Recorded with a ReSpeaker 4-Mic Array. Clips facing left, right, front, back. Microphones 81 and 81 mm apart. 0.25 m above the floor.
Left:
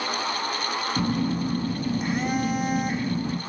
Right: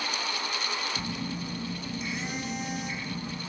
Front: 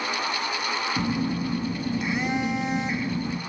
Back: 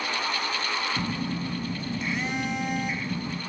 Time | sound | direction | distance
1.0 | a phone buzzing | 70° left | 1.1 m